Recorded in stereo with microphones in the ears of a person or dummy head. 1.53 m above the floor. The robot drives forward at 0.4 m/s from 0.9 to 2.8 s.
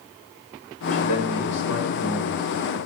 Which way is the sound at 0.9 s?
75° left (ahead or behind).